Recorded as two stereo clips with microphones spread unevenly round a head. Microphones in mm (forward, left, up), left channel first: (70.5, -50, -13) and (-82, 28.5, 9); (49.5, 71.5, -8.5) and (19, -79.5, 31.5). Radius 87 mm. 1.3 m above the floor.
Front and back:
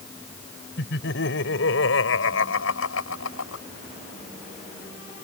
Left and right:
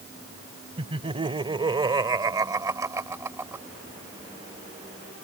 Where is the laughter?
50° right; by 3.6 s 30° right.